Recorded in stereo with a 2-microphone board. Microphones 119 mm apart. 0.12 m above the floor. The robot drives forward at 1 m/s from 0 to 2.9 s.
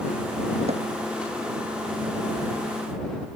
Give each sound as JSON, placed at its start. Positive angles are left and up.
{"t": 0.7, "sound": "hammering", "side_deg": -65}